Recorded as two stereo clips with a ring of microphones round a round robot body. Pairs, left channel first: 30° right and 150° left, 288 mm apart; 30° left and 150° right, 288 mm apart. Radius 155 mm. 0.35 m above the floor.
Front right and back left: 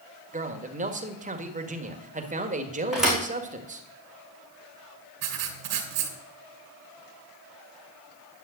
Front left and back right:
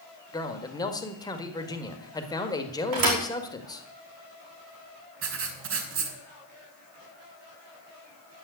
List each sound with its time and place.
0.3 s a man speaking: 100° left, 1.6 m
2.9 s a thud: 120° right, 4.5 m
5.2 s writing: 165° left, 2.5 m